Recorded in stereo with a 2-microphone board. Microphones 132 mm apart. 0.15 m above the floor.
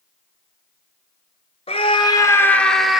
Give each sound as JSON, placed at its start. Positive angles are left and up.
{"t": 1.7, "sound": "a scream", "side_deg": 50, "distance_m": 1.8}